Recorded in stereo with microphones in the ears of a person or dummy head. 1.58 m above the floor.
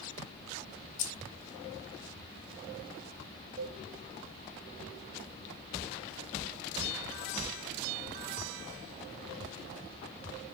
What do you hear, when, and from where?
1.0 s keys jangling: 40° left (ahead or behind), 0.8 m
3.6 s a cowbell: 50° right (ahead or behind), 0.6 m